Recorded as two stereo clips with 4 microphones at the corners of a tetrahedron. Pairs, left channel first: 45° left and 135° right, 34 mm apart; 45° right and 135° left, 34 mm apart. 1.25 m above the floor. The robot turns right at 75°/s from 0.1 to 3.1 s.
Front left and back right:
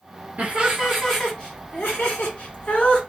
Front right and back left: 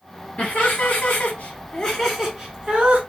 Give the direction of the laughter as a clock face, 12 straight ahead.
3 o'clock.